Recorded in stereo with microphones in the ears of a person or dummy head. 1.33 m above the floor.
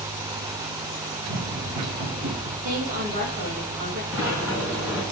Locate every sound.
1.2 s running footsteps: 60° right (ahead or behind), 2.5 m; by 2.5 s 55° right (ahead or behind), 3 m
2.6 s a woman speaking: 50° right (ahead or behind), 2.5 m
4.1 s a sliding door: 15° right (ahead or behind), 4 m